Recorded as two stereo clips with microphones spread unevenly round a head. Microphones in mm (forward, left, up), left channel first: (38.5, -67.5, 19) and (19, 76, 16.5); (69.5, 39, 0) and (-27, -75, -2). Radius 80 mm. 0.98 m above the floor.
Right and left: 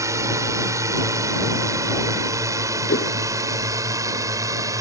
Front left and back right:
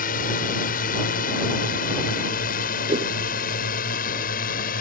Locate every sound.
0.0 s a drone: 30° left
2.9 s a whoosh: 80° right